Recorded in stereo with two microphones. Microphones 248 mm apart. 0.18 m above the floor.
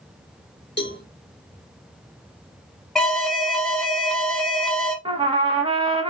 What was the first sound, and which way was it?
A cowbell, 45° left (ahead or behind).